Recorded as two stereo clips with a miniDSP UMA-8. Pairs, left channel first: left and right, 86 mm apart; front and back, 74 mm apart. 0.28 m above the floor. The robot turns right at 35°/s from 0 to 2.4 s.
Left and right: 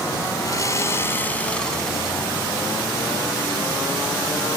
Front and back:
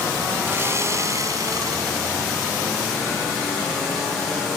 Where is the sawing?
125° left; by 2.2 s 175° right.